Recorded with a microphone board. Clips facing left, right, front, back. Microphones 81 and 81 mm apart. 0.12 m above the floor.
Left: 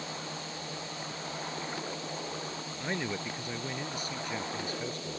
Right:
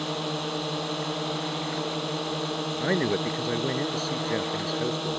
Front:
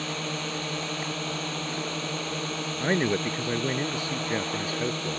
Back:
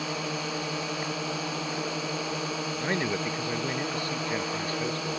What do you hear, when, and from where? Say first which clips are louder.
0.0 s a drone: right 10 dB, back 1 dB; 100° right
2.8 s a man speaking: right 9 dB, front 5 dB; 60° right